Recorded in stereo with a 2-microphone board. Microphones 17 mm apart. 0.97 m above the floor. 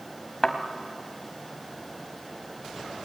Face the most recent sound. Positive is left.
turn(degrees=25)  # may be behind; listen again after turning